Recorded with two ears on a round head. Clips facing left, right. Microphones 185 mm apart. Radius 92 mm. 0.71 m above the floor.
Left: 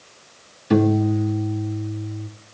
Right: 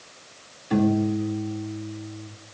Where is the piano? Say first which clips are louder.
Left 4 dB; 70° left (ahead or behind), 0.8 m.